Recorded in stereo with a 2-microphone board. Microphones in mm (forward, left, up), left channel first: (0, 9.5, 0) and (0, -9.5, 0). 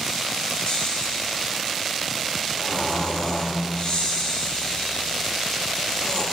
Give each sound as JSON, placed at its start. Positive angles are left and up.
{"t": 0.7, "sound": "snoring", "side_deg": 65, "distance_m": 4.0}